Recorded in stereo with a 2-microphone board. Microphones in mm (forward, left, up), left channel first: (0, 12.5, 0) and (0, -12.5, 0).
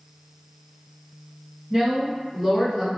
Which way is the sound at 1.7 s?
5° right (ahead or behind).